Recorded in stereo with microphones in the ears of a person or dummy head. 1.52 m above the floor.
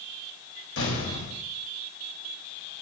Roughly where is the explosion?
Left.